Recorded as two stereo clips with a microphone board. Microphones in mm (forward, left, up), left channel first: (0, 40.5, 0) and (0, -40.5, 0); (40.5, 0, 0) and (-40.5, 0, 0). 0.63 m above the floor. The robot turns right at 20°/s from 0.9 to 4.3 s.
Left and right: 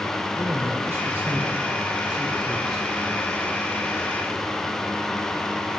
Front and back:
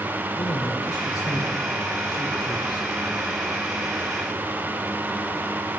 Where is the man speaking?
35° right, 1.7 m; by 2.9 s 5° left, 1.7 m.